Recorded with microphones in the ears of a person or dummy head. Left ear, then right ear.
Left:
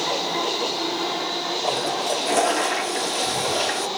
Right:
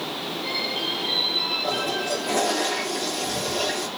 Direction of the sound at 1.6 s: 45° left (ahead or behind).